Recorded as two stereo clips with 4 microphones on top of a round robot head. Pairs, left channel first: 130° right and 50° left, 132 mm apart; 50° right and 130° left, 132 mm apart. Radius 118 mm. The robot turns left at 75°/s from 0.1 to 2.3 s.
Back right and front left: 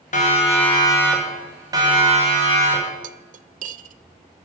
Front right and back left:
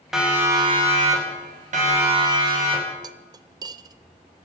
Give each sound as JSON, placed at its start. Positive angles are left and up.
{"t": 0.1, "sound": "a siren", "azimuth_deg": -145, "distance_m": 5.5}
{"t": 3.0, "sound": "cutlery clinking", "azimuth_deg": 70, "distance_m": 0.7}